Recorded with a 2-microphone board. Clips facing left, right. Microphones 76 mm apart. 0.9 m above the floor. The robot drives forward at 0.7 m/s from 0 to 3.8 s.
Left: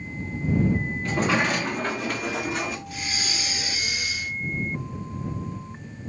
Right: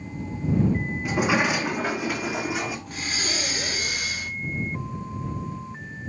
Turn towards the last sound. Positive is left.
turn(degrees=-55)  # may be behind; listen again after turning